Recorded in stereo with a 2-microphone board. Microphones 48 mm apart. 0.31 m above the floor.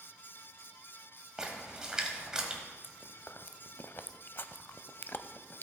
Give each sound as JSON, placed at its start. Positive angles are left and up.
{"t": 1.4, "sound": "a splash", "side_deg": -15, "distance_m": 1.5}
{"t": 2.8, "sound": "chewing", "side_deg": 50, "distance_m": 0.5}